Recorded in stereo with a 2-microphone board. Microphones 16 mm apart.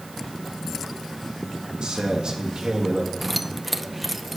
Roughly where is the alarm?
No alarm in this recording.